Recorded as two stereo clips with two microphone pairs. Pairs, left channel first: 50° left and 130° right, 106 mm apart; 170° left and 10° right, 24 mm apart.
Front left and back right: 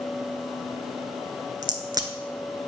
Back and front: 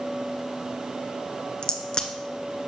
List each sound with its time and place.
1.6 s a crack: 160° right, 0.7 m